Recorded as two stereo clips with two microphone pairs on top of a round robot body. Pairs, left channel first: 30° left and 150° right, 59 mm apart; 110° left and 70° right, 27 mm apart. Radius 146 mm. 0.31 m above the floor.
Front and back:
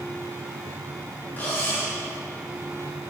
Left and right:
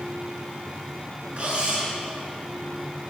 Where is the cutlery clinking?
25° right, 3.5 m.